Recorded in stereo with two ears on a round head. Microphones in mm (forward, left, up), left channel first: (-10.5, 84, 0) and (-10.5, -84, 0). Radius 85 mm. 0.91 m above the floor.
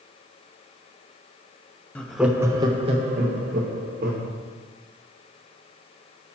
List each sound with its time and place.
1.9 s laughter: 5° left (ahead or behind), 0.6 m; by 4.3 s 50° right (ahead or behind), 1.2 m